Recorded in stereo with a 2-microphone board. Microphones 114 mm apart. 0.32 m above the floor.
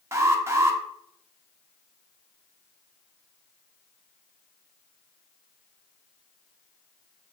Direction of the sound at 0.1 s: 25° right (ahead or behind).